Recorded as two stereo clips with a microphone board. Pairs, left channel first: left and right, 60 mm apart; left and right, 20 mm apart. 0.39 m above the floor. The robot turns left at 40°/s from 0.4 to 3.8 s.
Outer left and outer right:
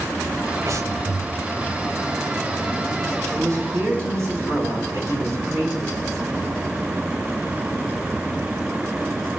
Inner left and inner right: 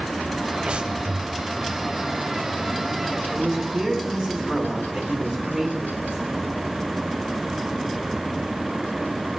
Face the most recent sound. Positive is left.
turn(degrees=-50)  # may be behind; listen again after turning